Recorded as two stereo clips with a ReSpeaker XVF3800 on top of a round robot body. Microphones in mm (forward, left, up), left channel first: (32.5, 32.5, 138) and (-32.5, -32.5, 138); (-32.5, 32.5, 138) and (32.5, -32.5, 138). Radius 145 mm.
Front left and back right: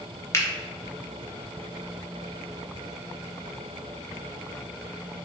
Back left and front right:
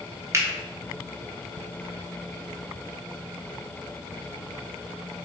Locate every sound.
0.3 s a finger snap: straight ahead, 0.9 m